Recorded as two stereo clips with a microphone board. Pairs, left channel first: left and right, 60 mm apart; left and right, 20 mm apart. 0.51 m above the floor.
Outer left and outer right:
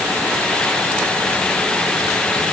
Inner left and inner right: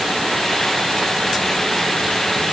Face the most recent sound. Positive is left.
No sound to turn to.